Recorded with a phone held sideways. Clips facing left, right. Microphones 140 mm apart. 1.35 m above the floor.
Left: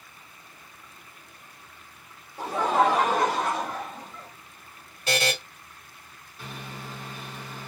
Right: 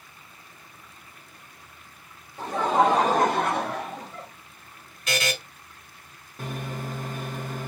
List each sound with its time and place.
2.4 s laughter: 5° left (ahead or behind), 0.8 m; by 4.3 s 70° right (ahead or behind), 1.1 m
5.1 s a buzzer: 35° left (ahead or behind), 1.3 m
6.4 s a microwave: 50° right (ahead or behind), 0.7 m